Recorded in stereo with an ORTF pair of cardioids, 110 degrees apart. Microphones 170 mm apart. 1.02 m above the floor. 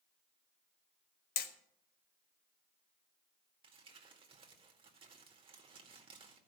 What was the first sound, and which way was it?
Hammering, 70° left.